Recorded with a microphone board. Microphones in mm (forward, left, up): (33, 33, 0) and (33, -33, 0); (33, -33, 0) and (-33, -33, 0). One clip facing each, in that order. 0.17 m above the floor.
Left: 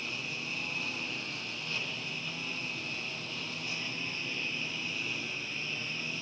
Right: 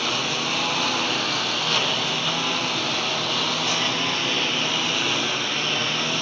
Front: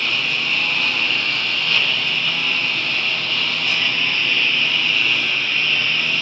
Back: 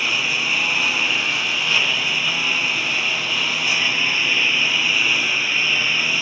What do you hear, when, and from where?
0.0 s a lawn mower: 100° right